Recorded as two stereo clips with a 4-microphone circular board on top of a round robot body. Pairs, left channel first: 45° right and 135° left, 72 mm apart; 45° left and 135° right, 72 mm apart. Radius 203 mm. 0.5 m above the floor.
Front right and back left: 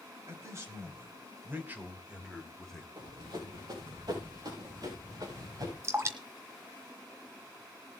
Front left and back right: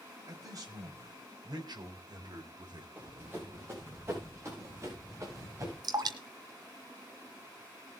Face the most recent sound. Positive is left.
turn(degrees=-170)